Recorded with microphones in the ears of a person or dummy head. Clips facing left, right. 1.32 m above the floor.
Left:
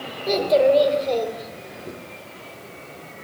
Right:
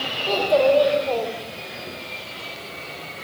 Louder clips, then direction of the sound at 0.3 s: Left 1 dB; 25° left (ahead or behind).